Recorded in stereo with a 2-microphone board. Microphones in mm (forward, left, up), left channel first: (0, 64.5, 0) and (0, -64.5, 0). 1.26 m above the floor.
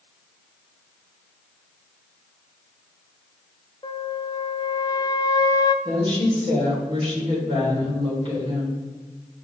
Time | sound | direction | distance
3.8 | a flute | 35° left (ahead or behind) | 0.5 m
5.8 | a woman speaking | 40° right (ahead or behind) | 4 m